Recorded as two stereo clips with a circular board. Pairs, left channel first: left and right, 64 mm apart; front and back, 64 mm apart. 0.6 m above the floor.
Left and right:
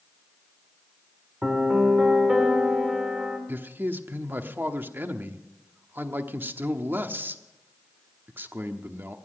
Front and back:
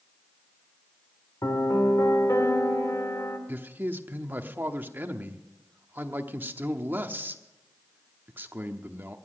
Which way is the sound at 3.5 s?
135° right.